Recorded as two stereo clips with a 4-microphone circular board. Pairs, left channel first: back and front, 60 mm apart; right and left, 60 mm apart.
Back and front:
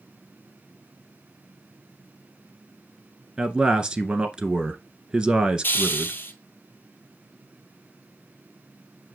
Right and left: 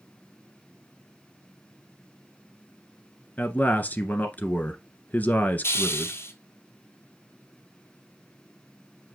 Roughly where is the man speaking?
Ahead right.